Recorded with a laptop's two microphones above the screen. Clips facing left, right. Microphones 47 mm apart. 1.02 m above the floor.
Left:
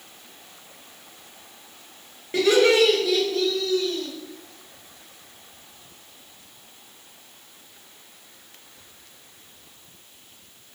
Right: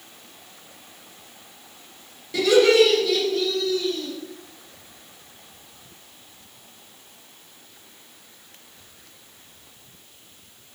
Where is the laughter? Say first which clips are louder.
Right 2 dB; 35° left (ahead or behind), 0.8 m; by 4.1 s 15° right (ahead or behind), 1.1 m.